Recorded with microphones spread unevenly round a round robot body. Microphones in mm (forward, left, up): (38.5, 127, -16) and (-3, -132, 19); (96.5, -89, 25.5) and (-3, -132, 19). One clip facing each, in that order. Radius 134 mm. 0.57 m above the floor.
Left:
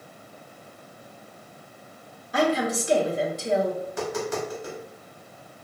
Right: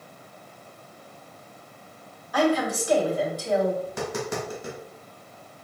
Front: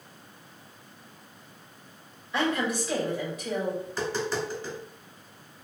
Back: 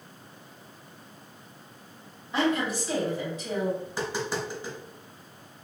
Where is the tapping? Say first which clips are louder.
Left 1 dB, front 1 dB; 85° right, 2.0 m.